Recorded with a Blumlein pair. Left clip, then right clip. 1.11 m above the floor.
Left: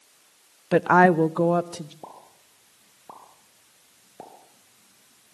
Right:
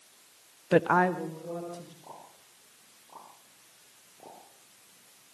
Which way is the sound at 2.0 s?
50° left.